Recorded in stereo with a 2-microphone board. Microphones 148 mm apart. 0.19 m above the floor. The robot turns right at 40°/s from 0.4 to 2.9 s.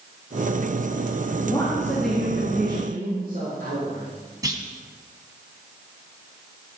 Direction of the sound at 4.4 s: 25° right (ahead or behind).